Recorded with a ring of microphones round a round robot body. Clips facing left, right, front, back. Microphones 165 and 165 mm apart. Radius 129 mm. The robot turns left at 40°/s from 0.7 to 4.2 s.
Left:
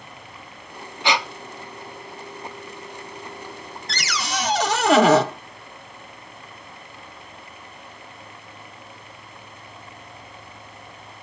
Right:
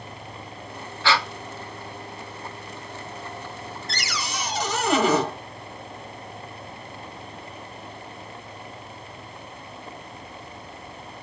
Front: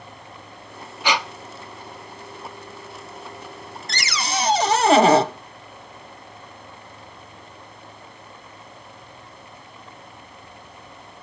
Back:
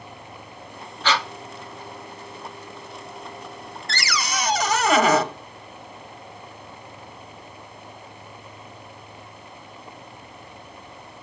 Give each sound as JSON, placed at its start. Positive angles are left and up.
{"t": 1.0, "sound": "breathing", "azimuth_deg": 55, "distance_m": 0.6}
{"t": 3.9, "sound": "a cupboard door", "azimuth_deg": 75, "distance_m": 0.9}